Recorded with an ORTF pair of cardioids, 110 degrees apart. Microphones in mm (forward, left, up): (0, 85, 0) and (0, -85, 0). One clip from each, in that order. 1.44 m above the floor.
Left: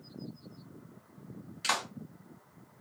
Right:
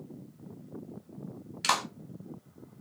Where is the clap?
30° right, 1.2 m.